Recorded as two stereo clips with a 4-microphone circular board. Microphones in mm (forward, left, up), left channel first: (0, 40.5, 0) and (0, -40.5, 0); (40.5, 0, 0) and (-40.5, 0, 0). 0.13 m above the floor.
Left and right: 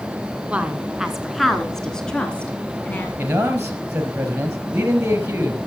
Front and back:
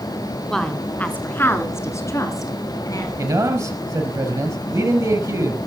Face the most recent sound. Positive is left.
turn(degrees=-150)